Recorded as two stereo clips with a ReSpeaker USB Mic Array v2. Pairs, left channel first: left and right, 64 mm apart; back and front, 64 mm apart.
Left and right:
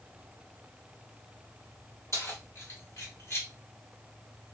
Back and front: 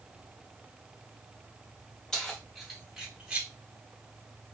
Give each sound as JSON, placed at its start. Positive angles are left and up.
{"t": 2.1, "sound": "keys jangling", "azimuth_deg": 105, "distance_m": 1.4}